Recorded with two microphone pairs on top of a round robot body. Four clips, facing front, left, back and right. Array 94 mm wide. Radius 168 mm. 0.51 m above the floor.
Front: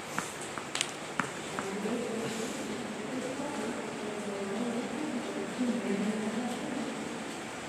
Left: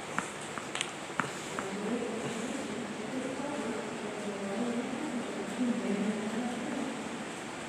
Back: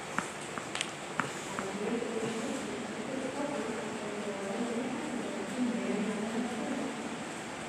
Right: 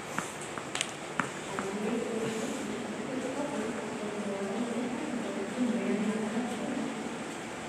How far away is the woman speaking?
About 5.5 m.